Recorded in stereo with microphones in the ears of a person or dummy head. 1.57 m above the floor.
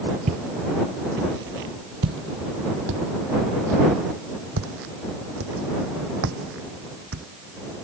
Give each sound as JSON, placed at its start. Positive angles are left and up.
{"t": 0.3, "sound": "footsteps", "side_deg": -45}